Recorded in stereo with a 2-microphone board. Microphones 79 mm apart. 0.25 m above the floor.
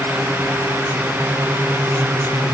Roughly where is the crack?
I don't hear a crack.